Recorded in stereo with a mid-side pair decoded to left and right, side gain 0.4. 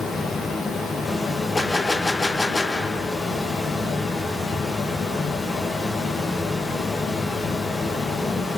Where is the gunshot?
20° left, 0.8 m.